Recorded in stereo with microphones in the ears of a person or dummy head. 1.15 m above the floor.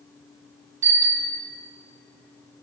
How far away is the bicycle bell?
About 2 m.